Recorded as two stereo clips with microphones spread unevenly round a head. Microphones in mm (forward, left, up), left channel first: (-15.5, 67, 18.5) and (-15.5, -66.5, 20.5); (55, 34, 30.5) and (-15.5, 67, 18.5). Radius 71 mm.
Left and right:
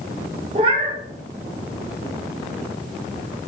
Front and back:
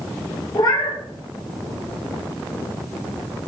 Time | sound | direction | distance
0.6 | a cat meowing | 45° right | 0.6 m